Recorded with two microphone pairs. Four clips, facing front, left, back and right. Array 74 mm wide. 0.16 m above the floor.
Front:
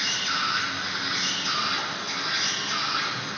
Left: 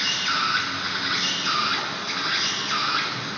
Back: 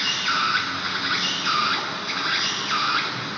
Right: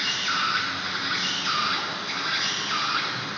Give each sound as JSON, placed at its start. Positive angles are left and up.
{"t": 0.0, "sound": "an insect", "azimuth_deg": 170, "distance_m": 0.8}